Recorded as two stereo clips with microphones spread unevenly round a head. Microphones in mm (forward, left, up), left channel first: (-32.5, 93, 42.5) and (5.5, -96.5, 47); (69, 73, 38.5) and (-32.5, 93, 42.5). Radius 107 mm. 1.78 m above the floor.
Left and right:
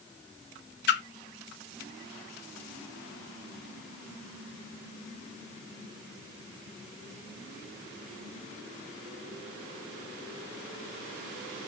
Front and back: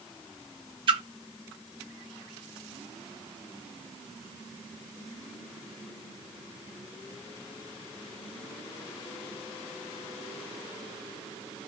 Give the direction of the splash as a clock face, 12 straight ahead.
7 o'clock.